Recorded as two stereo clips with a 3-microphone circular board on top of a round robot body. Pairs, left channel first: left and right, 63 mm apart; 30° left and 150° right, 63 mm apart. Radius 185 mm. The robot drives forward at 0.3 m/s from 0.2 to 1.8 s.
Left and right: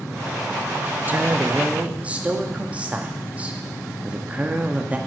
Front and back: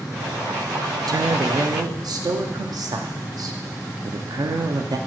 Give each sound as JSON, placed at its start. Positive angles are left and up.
{"t": 1.1, "sound": "a woman speaking", "azimuth_deg": -150, "distance_m": 0.5}